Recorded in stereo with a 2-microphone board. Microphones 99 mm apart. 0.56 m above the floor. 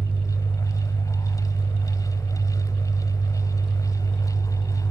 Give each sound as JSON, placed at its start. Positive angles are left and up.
{"t": 0.0, "sound": "an engine running", "side_deg": -20, "distance_m": 1.8}